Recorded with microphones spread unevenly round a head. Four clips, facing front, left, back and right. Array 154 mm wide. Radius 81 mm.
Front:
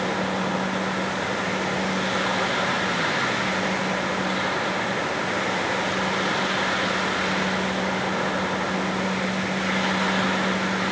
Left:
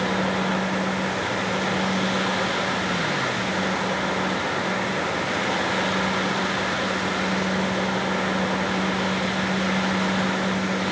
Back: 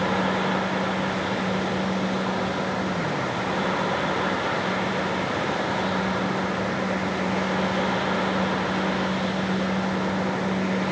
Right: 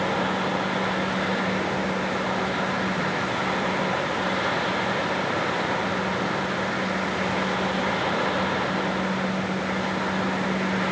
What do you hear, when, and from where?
Only background noise.